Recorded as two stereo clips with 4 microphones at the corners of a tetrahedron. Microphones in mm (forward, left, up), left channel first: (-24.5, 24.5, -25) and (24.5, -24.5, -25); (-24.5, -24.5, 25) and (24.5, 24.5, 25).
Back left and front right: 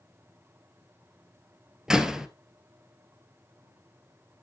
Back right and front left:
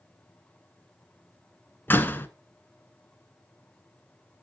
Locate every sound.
1.9 s a door slam: 120° right, 1.3 m